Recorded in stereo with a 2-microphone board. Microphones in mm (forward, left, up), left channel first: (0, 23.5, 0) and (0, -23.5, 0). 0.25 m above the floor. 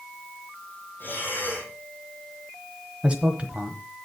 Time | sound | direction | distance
1.0 | breathing | 45° left (ahead or behind) | 3 m
3.0 | a man speaking | 30° right (ahead or behind) | 1.2 m